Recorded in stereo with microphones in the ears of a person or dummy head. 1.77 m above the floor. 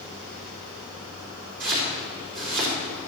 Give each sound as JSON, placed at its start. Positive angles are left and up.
{"t": 1.6, "sound": "chopping", "side_deg": -50, "distance_m": 3.5}